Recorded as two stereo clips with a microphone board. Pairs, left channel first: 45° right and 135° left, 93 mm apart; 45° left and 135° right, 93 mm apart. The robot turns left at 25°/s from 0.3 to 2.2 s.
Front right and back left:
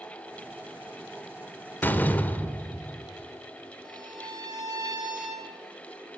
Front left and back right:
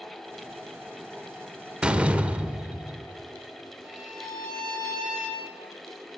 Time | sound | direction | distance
1.8 | a door slam | 70° right | 0.8 m
3.8 | a violin | 90° left | 4 m